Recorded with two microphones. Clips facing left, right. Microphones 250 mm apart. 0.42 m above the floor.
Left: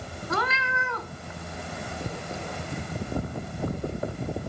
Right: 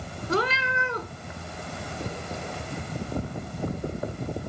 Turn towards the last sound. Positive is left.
turn(degrees=-35)  # may be behind; listen again after turning